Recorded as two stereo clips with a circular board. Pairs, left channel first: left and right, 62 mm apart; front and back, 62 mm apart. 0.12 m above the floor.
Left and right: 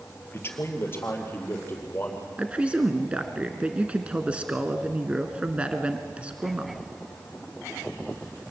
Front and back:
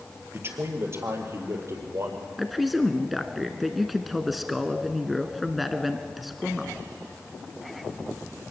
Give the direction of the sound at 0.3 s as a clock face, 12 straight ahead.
8 o'clock.